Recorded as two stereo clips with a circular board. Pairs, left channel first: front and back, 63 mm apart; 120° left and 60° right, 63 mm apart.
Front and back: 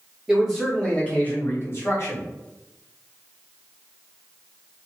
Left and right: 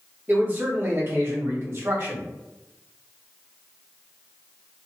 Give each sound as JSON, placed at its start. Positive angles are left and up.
{"t": 0.3, "sound": "a man speaking", "azimuth_deg": -100, "distance_m": 0.8}